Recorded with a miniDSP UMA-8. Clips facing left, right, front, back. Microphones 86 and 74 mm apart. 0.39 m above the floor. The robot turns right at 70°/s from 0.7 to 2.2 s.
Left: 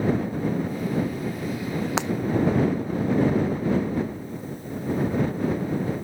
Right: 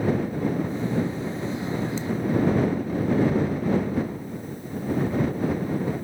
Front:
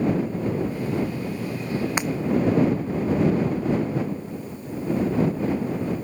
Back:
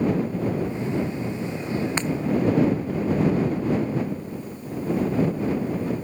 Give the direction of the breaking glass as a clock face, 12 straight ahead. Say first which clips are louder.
Left 4 dB, front 1 dB; 9 o'clock.